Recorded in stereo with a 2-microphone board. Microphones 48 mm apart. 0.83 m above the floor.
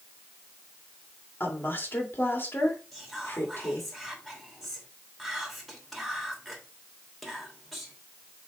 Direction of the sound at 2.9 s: 5° left (ahead or behind).